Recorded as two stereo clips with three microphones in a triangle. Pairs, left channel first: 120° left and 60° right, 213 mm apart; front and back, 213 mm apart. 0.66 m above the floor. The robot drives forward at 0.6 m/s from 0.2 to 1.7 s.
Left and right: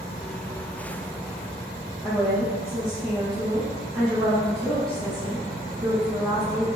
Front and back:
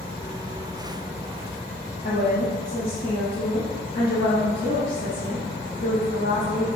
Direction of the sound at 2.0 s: 30° left.